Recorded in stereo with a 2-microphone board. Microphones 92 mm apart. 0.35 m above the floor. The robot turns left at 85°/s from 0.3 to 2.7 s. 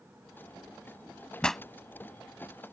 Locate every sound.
1.4 s a pop: 10° left (ahead or behind); by 1.6 s 5° right (ahead or behind)